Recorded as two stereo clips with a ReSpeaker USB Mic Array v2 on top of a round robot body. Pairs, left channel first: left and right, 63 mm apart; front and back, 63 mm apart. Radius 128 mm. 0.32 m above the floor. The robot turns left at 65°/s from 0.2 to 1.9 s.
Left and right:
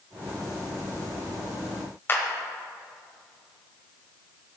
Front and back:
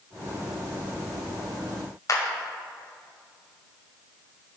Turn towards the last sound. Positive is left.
turn(degrees=35)